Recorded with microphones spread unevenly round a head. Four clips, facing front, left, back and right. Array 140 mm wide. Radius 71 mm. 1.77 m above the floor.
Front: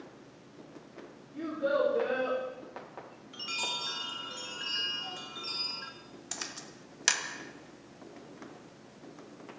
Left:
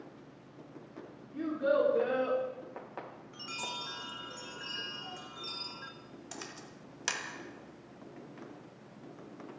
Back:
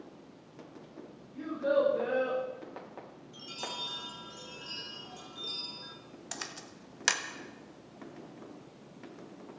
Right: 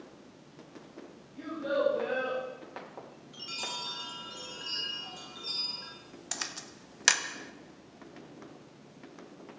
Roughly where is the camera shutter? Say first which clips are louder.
Right 4 dB, back 1 dB; behind right.